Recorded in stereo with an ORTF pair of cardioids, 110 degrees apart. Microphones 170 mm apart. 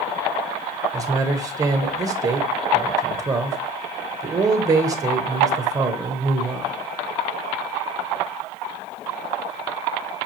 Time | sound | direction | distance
0.9 | a man speaking | 20° right | 0.8 m